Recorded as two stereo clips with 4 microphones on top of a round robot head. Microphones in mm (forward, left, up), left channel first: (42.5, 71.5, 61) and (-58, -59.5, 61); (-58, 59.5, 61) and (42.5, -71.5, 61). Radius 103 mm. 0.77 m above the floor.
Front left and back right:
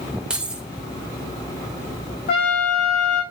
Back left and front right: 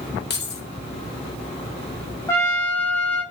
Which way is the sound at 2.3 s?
55° left.